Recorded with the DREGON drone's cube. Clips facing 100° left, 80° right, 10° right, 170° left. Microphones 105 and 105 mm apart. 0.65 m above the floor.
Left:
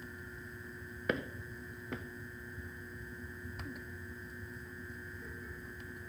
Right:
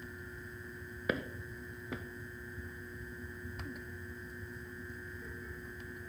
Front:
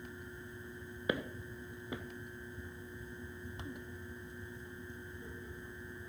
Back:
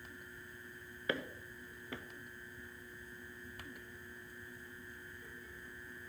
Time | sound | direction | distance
1.1 | footsteps | 5° left | 0.6 m